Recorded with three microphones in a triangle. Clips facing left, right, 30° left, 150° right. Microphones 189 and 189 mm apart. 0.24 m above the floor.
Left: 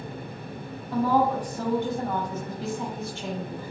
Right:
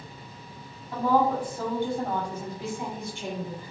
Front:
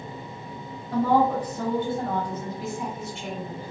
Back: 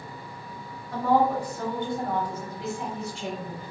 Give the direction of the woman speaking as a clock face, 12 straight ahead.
12 o'clock.